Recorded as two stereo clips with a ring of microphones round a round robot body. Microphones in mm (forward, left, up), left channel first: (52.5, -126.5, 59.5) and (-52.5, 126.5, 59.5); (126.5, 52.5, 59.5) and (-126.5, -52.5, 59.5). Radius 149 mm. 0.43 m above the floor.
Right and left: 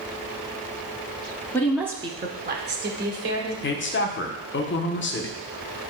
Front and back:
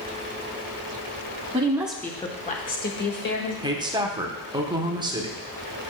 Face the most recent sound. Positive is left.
turn(degrees=-90)